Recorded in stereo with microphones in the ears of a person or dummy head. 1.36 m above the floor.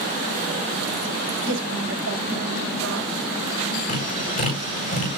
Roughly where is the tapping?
Left.